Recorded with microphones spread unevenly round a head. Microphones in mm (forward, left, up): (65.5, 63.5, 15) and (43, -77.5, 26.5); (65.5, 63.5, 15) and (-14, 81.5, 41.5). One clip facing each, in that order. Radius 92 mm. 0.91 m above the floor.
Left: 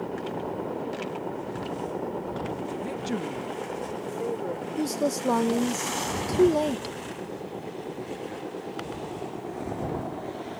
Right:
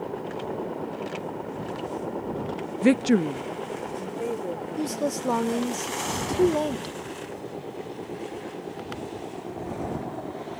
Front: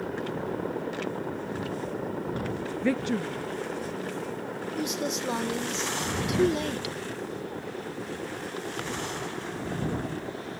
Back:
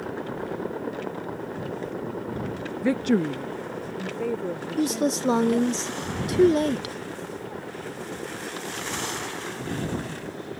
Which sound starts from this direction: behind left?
A woman speaking, at 4.8 s.